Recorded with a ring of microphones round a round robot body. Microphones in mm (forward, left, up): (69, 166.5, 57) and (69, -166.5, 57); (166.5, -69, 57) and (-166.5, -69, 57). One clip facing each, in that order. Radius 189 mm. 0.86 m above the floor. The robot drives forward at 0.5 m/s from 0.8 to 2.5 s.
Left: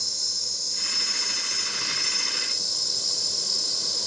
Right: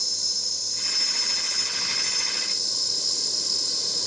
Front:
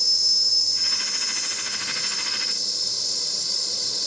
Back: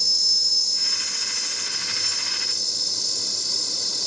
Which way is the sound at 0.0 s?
140° right.